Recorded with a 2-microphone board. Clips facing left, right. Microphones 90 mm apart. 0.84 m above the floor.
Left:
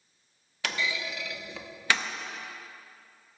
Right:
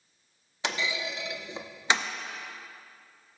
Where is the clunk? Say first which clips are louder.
Right 1 dB; 20° right (ahead or behind), 0.5 m.